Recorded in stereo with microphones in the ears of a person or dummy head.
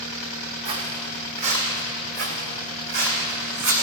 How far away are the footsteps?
About 2.5 m.